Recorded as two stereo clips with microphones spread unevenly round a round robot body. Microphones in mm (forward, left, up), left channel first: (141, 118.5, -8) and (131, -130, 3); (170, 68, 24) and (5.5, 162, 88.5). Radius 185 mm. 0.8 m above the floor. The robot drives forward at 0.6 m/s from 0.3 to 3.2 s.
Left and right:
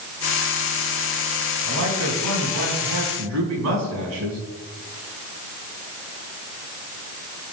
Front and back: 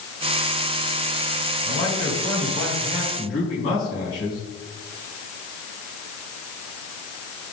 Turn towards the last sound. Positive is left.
turn(degrees=-90)